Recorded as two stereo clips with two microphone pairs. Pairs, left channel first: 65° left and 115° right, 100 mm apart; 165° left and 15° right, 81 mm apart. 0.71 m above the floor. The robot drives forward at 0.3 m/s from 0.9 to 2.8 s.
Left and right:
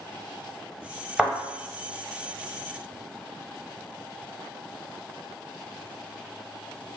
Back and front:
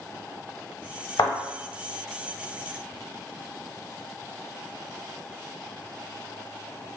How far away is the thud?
About 0.8 m.